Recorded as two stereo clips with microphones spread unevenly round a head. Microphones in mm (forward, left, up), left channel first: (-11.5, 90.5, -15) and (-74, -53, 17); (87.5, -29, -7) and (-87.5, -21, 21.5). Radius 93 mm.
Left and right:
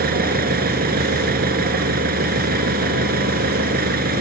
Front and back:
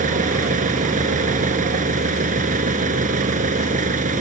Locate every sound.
0.0 s an engine running: 135° right